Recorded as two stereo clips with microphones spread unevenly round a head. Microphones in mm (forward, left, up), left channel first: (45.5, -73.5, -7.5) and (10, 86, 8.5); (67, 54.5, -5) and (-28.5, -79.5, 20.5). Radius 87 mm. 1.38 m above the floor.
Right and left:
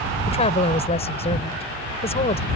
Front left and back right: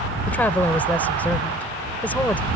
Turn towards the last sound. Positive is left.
turn(degrees=-25)